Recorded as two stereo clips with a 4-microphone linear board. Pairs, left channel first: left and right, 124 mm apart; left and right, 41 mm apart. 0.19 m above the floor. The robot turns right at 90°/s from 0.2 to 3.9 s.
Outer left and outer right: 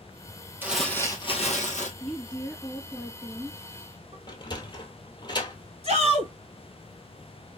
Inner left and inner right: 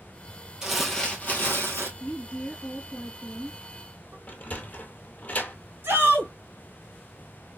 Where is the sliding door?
35° left (ahead or behind), 0.9 m.